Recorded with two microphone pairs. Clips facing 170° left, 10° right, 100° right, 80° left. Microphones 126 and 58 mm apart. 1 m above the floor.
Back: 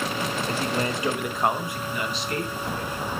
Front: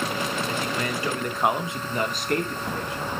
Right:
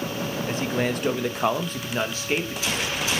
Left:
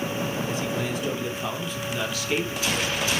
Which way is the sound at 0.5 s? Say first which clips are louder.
Back 2 dB, right 2 dB; 145° right.